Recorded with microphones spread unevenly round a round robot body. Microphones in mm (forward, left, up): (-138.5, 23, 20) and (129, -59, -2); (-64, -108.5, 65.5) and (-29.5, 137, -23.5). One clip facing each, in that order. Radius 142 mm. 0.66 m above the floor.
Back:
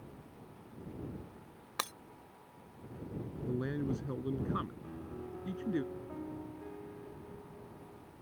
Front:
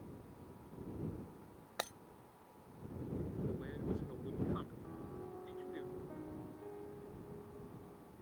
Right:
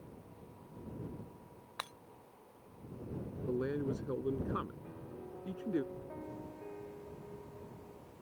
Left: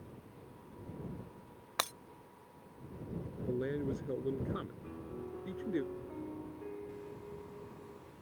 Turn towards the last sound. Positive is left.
turn(degrees=130)